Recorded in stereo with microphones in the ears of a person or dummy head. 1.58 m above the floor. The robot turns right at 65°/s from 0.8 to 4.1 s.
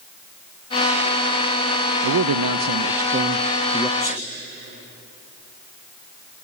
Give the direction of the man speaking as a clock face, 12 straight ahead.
4 o'clock.